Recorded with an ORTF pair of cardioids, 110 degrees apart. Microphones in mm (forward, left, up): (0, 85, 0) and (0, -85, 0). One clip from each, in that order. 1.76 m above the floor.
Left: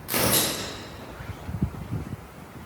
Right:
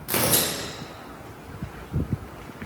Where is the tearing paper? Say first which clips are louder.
Even; 20° right, 0.9 m.